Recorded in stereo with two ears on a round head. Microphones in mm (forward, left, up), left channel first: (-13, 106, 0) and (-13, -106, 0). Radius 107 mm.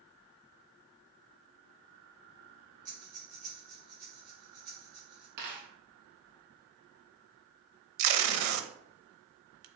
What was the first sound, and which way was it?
Breathing, 35° right (ahead or behind).